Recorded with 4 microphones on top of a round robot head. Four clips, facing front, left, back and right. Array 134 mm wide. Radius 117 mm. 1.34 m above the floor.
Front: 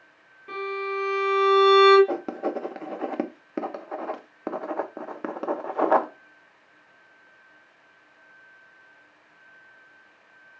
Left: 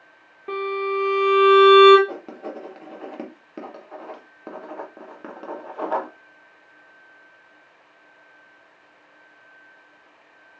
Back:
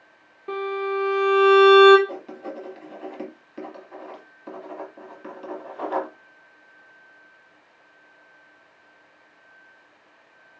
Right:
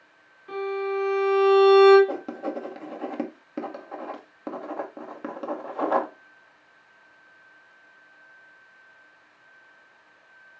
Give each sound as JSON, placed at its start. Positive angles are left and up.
{"t": 0.5, "sound": "a violin", "azimuth_deg": 110, "distance_m": 1.8}
{"t": 2.1, "sound": "writing", "azimuth_deg": -5, "distance_m": 0.9}